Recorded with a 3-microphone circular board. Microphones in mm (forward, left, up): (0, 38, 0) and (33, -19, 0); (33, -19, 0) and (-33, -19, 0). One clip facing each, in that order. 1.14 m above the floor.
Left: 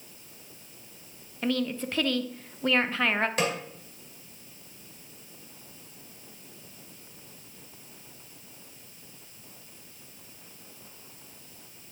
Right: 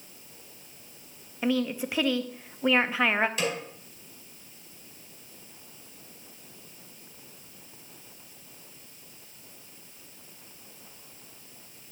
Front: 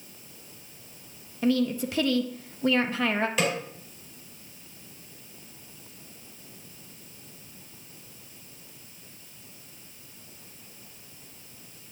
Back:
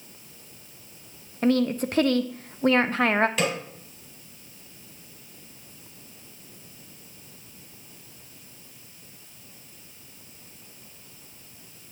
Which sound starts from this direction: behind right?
A woman speaking, at 1.4 s.